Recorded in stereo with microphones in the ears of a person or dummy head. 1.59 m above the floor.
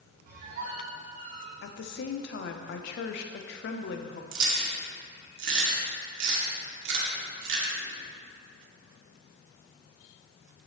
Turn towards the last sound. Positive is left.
turn(degrees=-80)